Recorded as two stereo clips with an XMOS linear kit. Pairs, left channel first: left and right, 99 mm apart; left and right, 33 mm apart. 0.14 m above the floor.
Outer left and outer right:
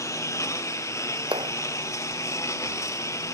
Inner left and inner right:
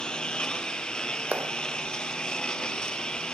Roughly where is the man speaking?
I don't hear a man speaking.